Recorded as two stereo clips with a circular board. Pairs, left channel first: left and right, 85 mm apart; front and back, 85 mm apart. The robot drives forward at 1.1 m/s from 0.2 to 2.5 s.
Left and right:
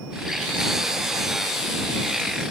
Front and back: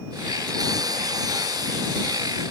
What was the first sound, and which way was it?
Only background noise.